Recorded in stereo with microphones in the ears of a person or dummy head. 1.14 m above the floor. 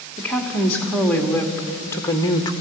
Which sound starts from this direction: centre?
A woman speaking, at 0.2 s.